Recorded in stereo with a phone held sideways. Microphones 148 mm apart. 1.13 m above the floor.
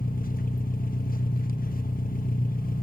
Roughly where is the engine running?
Left.